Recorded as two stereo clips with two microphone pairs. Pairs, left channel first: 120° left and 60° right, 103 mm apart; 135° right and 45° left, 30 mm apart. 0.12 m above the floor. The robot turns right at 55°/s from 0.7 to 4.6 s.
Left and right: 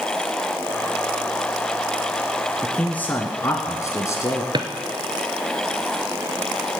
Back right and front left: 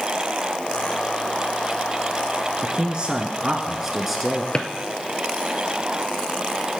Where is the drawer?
70° right, 1.2 m.